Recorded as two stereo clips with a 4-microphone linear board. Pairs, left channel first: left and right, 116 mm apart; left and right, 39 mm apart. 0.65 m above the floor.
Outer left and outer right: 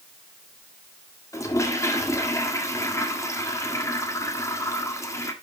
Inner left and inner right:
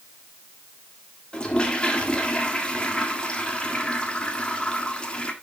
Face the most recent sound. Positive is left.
turn(degrees=25)  # may be behind; listen again after turning